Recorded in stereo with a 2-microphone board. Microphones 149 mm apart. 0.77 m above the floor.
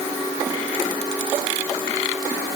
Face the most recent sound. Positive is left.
No sound to turn to.